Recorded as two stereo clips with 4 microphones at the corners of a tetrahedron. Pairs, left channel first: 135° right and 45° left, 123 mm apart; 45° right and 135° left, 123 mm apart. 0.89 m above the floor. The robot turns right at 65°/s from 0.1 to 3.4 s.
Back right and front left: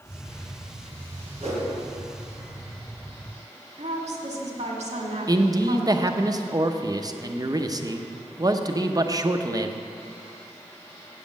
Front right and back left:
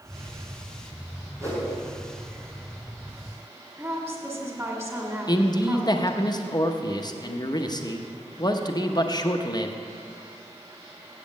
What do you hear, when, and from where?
1.4 s a whoosh: 65° left, 3 m; by 1.7 s 85° left, 3 m
3.8 s a woman speaking: 65° left, 1.8 m
5.3 s a man speaking: 5° right, 0.7 m